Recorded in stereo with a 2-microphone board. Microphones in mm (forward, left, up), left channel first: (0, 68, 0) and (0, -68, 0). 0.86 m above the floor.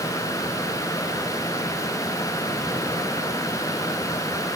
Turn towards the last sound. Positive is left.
No sound to turn to.